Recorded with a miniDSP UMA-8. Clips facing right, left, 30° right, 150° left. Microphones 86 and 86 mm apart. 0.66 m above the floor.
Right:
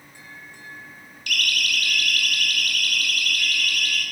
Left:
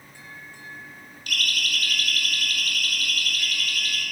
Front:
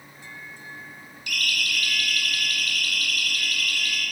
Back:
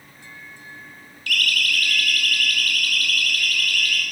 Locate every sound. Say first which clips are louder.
1.3 s a siren: right 2 dB, back 5 dB; 40° left, 3.5 m; by 4.0 s 30° left, 6 m